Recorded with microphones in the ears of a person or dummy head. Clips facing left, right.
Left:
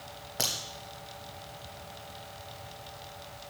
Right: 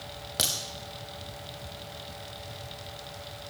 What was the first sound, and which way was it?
A crack, 20° right (ahead or behind).